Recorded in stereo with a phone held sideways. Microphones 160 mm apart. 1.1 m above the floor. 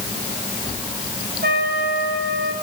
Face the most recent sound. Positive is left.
turn(degrees=-75)  # may be behind; listen again after turning